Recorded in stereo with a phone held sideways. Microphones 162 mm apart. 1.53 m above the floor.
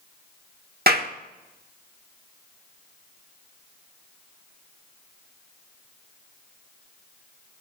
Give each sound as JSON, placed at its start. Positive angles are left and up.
{"t": 0.9, "sound": "a clap", "side_deg": -70, "distance_m": 1.3}